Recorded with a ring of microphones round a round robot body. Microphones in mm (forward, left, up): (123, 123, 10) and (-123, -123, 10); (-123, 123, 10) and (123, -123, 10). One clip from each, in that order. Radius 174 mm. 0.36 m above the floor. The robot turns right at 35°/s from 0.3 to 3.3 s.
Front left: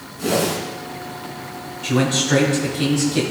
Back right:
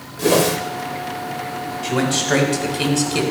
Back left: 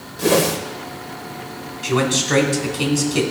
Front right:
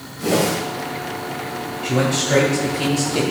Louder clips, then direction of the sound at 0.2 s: Back right 4 dB, back left 2 dB; straight behind.